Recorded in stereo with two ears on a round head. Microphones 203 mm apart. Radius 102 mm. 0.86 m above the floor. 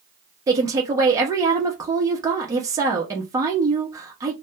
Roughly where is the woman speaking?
Centre.